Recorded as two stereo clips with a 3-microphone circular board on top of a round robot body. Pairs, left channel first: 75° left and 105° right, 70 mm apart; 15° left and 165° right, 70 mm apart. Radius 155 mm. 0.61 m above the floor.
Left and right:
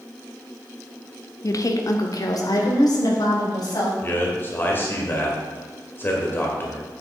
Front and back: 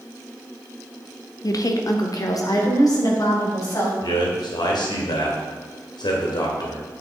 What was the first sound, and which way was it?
A woman speaking, 40° left.